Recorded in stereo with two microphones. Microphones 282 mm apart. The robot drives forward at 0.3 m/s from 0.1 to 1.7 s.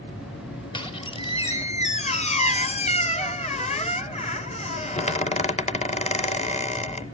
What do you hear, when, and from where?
0.7 s a squeak: 15° left (ahead or behind), 0.9 m; by 7.0 s 25° left (ahead or behind), 0.6 m